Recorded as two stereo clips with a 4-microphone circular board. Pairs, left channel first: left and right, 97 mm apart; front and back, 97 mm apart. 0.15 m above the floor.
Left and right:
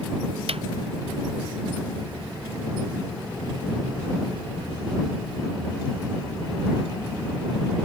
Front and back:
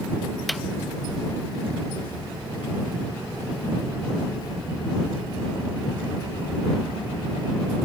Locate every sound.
0.5 s a snare drum: 90° right